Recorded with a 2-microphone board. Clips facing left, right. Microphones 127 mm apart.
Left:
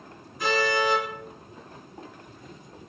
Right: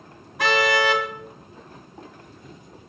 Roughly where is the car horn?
Right.